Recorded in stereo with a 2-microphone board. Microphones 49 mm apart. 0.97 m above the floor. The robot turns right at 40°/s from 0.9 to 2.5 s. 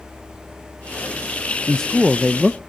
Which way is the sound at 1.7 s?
160° left.